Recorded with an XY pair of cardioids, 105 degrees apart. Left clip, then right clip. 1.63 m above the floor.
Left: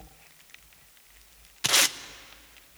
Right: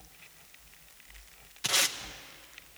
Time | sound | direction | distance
1.6 | tape being pulled | 45° left | 0.8 m